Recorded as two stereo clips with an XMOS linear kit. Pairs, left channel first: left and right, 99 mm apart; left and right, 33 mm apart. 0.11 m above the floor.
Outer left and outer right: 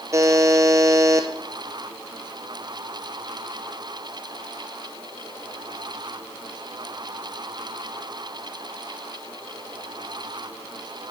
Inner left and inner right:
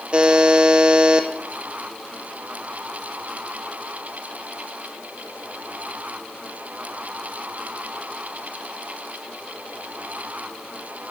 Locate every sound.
0.1 s a buzzer: 30° right (ahead or behind), 1.3 m